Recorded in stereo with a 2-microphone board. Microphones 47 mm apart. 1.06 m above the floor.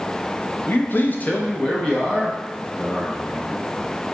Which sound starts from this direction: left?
A man speaking, at 0.7 s.